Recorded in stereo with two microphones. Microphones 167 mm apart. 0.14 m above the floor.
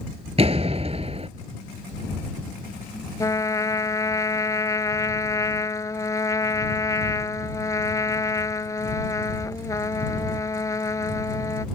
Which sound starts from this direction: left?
A trumpet, at 3.2 s.